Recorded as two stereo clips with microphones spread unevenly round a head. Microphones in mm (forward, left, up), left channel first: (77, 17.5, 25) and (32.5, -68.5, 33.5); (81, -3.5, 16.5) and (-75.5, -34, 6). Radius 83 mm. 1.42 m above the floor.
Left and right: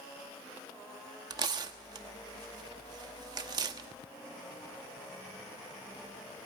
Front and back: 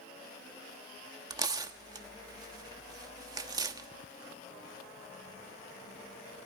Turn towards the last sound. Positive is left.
turn(degrees=-105)